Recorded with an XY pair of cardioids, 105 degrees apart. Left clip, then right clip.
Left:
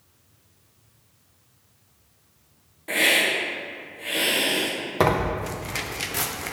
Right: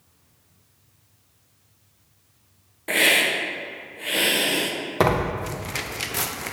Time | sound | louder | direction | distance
2.9 | a hiss | right 1 dB | 40° right | 1.1 m
5.0 | tearing paper | even | 10° right | 0.6 m